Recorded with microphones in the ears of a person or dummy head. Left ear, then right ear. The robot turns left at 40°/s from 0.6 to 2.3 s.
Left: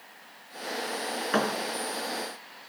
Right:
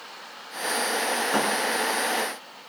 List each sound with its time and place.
1.3 s a thud: 5° left (ahead or behind), 3.5 m; by 1.5 s 15° left (ahead or behind), 3.5 m